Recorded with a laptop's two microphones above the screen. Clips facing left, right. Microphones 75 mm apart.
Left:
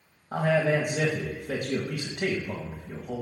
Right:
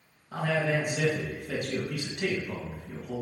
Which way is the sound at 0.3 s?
55° left (ahead or behind).